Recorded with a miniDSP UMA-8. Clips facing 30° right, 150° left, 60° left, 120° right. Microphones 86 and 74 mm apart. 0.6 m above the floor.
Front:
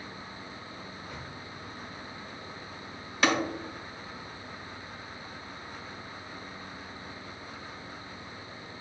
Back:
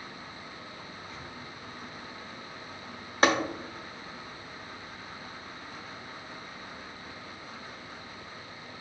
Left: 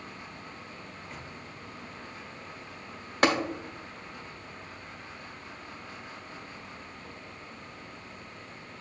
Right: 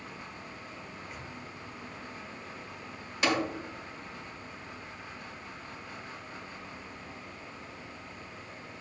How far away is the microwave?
About 1.4 m.